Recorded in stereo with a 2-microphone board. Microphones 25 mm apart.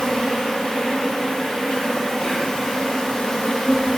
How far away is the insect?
About 2 m.